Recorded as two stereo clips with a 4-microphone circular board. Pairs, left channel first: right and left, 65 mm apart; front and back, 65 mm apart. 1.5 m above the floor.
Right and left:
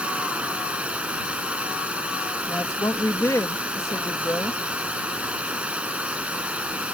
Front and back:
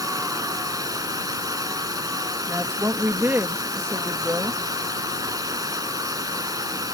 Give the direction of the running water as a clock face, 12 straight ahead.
7 o'clock.